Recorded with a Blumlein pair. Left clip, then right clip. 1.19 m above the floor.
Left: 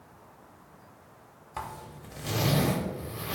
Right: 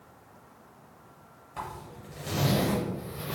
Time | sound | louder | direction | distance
1.6 | a zipper | even | 20° left | 0.7 m